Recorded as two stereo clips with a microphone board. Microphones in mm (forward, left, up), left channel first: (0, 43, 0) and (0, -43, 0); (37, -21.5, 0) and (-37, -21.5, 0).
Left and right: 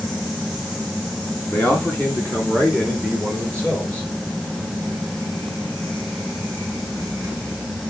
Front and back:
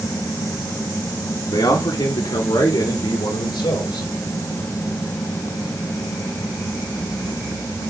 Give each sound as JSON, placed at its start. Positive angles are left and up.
{"t": 1.5, "sound": "a man speaking", "azimuth_deg": 20, "distance_m": 2.0}